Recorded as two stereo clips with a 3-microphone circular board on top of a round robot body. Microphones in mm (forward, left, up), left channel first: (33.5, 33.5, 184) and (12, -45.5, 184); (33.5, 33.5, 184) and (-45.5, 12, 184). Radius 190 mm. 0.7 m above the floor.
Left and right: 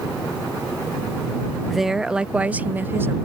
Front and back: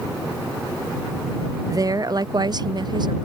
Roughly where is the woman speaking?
Behind.